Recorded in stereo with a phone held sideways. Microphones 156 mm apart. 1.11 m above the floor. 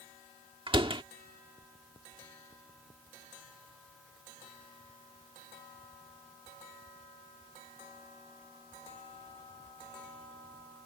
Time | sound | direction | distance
0.7 | a door slam | 35° right (ahead or behind) | ?